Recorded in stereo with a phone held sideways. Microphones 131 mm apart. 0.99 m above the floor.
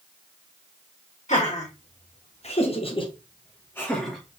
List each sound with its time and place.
1.3 s laughter: 65° left (ahead or behind), 1.6 m; by 4.4 s 5° right (ahead or behind), 0.9 m